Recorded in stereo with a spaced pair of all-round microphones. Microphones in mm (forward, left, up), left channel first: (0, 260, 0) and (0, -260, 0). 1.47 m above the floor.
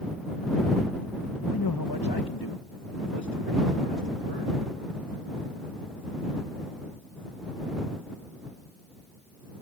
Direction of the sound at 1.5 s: 40° left (ahead or behind).